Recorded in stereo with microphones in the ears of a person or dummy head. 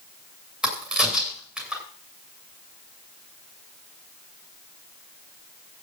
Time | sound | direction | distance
0.6 | a crack | 5° right (ahead or behind) | 7 m